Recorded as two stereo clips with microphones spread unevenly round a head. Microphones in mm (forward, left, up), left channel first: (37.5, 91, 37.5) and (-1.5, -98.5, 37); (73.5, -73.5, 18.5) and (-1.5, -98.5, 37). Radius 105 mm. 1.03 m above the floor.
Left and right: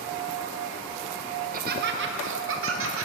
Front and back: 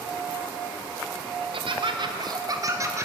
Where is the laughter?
150° right, 1.2 m; by 3.0 s 100° right, 1.5 m.